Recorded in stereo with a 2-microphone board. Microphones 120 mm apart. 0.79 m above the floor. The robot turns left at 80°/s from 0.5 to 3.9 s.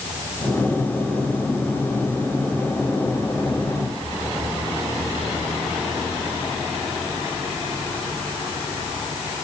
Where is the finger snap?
No finger snap in this recording.